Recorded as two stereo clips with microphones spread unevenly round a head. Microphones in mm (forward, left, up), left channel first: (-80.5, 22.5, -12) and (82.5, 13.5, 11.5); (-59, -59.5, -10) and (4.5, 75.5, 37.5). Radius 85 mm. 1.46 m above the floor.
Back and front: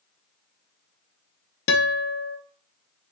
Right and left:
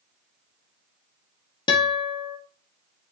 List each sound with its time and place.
1.7 s a guitar: 175° left, 0.5 m